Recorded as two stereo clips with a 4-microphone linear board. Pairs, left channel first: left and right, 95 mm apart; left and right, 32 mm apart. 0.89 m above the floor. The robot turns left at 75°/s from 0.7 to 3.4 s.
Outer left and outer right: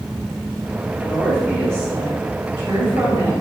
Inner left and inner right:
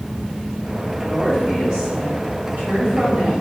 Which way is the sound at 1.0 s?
30° left.